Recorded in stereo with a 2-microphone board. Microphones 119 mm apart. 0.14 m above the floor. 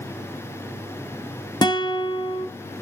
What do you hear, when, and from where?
1.6 s a guitar: 40° left (ahead or behind), 1.2 m